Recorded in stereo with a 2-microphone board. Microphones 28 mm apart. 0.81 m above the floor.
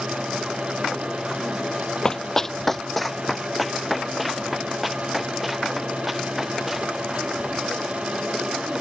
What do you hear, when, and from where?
2.0 s running footsteps: 25° left (ahead or behind); by 7.0 s 10° right (ahead or behind)